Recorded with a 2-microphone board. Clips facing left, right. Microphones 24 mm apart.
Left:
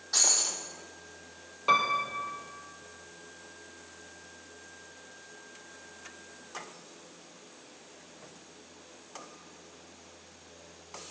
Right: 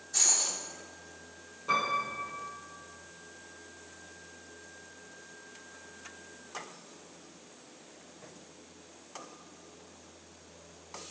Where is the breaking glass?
80° left, 3.5 m.